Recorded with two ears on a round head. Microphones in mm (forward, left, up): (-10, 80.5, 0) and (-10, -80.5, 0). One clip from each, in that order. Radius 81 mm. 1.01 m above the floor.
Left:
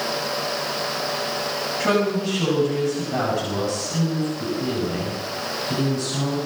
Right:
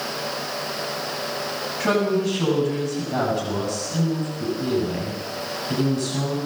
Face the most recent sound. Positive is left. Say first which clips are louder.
# right 1 dB
turn(degrees=0)  # may be behind; listen again after turning